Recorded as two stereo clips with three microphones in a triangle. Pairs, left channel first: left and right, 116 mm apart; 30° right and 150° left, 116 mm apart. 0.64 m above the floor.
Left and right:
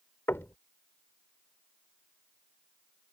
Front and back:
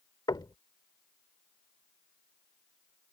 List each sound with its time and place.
0.3 s knocking: 20° left